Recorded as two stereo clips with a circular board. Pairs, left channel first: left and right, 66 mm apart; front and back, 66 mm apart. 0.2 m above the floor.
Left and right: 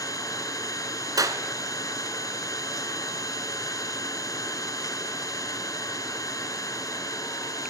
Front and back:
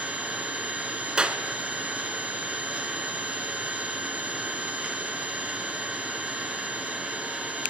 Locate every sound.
0.0 s an engine running: 110° left, 2.5 m
1.2 s a clap: 105° right, 1.6 m